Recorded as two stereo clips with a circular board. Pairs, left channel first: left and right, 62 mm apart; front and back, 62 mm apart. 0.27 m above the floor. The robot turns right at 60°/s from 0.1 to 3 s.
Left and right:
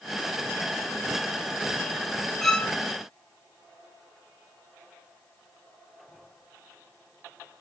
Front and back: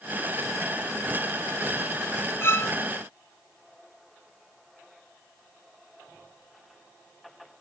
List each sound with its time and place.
2.4 s a violin: 10° left, 1.5 m; by 2.7 s 30° left, 1.5 m